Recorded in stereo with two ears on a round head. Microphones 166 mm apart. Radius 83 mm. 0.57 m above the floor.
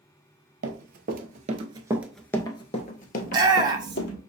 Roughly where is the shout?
Right.